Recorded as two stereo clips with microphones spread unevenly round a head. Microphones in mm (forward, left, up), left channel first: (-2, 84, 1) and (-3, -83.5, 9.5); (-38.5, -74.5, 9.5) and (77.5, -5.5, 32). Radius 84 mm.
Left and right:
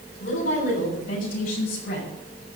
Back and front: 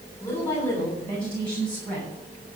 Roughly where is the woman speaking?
Behind left.